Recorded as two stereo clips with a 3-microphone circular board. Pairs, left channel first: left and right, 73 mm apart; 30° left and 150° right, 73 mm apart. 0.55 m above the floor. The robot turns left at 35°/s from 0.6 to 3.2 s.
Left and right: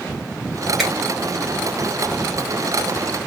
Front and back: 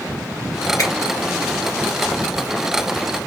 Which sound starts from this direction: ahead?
A finger snap, at 0.8 s.